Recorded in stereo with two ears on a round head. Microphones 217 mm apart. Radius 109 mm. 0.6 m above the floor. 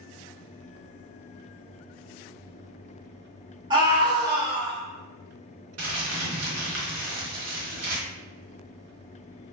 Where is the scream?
20° right (ahead or behind), 0.9 m.